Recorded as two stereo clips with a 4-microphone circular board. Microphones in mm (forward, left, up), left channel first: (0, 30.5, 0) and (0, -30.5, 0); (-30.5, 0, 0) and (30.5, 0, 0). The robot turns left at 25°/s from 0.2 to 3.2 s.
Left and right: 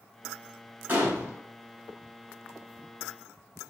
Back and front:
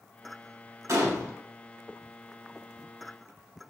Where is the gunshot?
30° right, 0.7 m; by 1.3 s 40° right, 0.7 m.